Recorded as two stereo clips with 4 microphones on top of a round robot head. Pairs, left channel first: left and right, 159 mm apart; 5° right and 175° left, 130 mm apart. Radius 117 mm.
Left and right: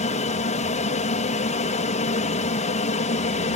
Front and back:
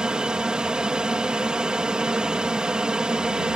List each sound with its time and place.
0.0 s an aircraft: 90° left